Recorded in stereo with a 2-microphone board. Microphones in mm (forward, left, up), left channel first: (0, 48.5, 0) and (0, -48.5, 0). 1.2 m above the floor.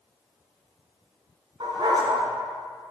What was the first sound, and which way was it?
A dog barking, 60° right (ahead or behind).